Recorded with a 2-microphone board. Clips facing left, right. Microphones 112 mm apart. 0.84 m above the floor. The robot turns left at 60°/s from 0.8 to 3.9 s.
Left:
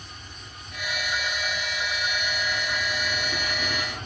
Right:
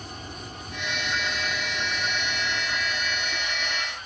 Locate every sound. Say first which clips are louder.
0.0 s an insect: right 7 dB; 50° right; by 4.1 s 125° left